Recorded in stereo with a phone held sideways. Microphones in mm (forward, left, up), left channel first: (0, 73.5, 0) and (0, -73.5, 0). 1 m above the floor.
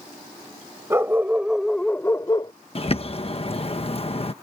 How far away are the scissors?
I don't hear scissors.